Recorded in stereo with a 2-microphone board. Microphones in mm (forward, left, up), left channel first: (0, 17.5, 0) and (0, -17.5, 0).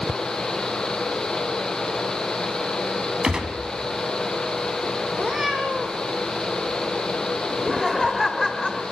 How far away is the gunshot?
About 2.5 m.